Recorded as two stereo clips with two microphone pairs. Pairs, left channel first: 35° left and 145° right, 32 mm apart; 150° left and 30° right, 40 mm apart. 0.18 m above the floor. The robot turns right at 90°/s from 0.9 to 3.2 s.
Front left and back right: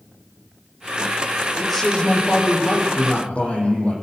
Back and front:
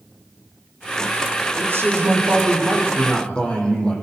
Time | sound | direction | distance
1.6 | a man speaking | 65° right | 7 m